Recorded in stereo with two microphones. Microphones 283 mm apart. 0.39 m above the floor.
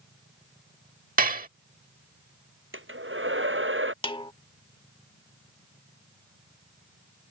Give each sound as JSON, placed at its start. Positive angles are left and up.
{"t": 1.2, "sound": "dishes clattering", "side_deg": -30}
{"t": 2.7, "sound": "a hair dryer", "side_deg": -45}
{"t": 4.0, "sound": "a snare drum", "side_deg": 20}